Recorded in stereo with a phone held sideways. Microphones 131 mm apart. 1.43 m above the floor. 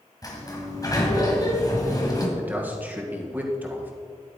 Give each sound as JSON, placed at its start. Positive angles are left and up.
{"t": 0.2, "sound": "a sliding door", "side_deg": 30, "distance_m": 1.9}
{"t": 2.4, "sound": "a man speaking", "side_deg": -15, "distance_m": 1.8}